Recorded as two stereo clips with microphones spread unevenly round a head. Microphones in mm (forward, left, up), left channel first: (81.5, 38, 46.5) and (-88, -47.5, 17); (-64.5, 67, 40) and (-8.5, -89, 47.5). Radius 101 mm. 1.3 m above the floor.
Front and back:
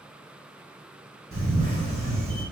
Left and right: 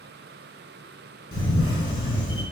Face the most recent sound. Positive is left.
turn(degrees=165)